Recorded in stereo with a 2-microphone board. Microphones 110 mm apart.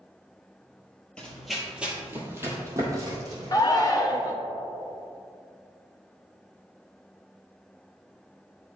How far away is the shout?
About 0.8 m.